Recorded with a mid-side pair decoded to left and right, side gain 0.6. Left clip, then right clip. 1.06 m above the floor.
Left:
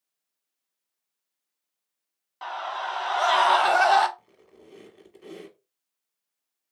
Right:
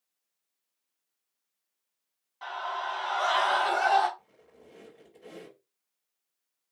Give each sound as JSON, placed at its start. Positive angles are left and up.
{"t": 2.4, "sound": "a scream", "azimuth_deg": 40, "distance_m": 1.6}
{"t": 4.2, "sound": "a squeak", "azimuth_deg": 45, "distance_m": 1.7}